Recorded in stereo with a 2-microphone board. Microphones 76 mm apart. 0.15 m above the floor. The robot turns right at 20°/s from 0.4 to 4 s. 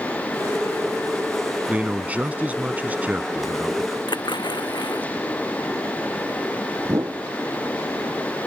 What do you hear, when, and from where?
1.7 s a man speaking: 20° right (ahead or behind)
4.1 s a splash: 70° left (ahead or behind)
6.8 s a whoosh: 40° right (ahead or behind)